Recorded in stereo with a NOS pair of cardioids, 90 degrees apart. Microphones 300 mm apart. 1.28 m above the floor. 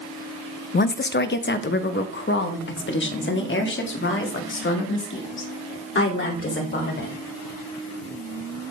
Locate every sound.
0.7 s a woman speaking: 35° left, 0.7 m; by 7.1 s 40° left, 4 m